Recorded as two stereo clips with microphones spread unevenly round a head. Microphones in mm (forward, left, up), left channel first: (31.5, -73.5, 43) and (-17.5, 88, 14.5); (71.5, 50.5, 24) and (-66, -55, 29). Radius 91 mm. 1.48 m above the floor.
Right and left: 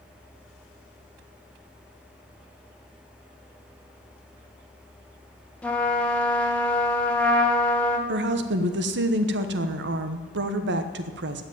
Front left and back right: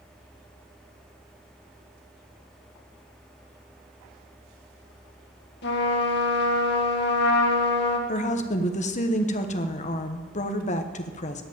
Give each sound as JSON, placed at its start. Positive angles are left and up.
{"t": 5.6, "sound": "a trumpet", "azimuth_deg": 10, "distance_m": 1.7}
{"t": 8.1, "sound": "a woman speaking", "azimuth_deg": 90, "distance_m": 1.2}